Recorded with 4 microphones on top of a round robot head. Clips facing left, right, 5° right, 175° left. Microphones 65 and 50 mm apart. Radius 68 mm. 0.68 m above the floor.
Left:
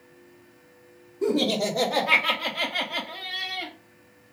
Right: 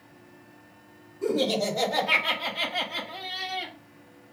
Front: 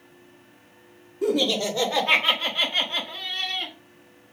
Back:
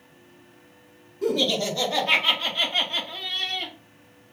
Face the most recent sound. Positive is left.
turn(degrees=50)